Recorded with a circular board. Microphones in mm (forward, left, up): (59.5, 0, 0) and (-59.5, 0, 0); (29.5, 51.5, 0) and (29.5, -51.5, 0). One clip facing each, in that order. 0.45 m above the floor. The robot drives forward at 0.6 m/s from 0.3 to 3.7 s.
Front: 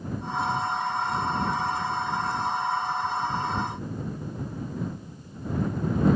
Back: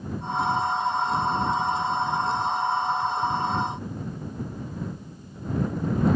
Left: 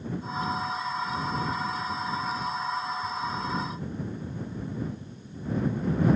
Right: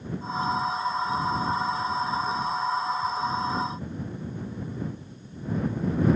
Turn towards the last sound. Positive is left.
No sound to turn to.